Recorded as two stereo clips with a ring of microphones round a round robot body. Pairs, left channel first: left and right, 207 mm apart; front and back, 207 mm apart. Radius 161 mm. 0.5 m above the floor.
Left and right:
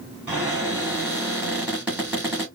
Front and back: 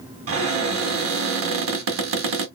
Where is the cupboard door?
175° right, 1.5 m.